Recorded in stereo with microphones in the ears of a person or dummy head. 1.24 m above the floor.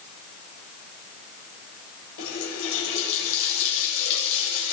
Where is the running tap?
70° left (ahead or behind), 3.5 m.